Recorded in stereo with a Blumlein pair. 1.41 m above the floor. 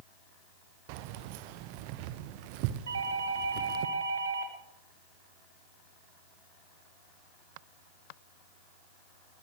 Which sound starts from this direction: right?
A doorbell, at 2.9 s.